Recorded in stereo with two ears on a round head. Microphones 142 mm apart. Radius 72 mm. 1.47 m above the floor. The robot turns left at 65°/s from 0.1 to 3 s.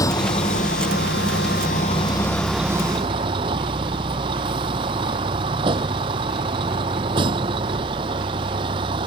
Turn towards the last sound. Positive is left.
turn(degrees=-30)